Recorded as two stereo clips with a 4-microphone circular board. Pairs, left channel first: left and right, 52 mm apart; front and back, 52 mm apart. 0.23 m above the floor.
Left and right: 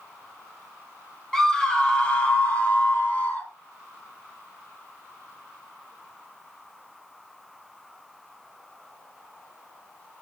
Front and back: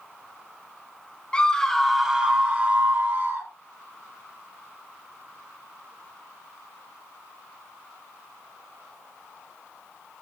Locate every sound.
1.3 s a scream: 15° left, 1.2 m; by 3.5 s 145° left, 2 m